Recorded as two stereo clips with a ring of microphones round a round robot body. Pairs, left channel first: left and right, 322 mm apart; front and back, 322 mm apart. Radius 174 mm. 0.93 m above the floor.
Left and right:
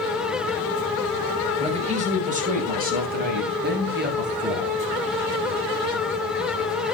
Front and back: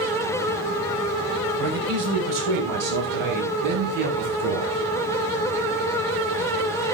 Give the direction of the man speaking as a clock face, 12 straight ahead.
5 o'clock.